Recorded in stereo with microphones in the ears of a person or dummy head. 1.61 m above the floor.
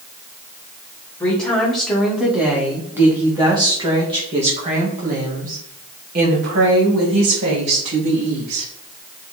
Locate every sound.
1.2 s a woman speaking: centre (ahead or behind), 2.5 m; by 8.7 s 75° right (ahead or behind), 3.5 m